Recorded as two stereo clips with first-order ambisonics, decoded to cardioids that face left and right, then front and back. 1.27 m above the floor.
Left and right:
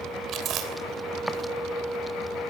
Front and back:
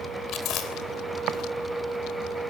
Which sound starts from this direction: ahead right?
Chewing, at 0.3 s.